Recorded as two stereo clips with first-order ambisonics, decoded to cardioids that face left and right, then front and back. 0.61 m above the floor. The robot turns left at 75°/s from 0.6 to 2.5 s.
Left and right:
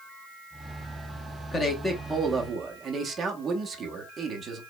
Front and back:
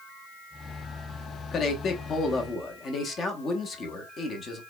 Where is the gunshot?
No gunshot in this recording.